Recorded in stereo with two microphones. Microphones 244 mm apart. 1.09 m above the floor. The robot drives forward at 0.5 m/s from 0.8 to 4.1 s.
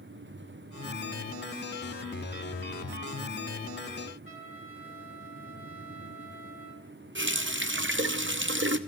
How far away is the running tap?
About 0.6 m.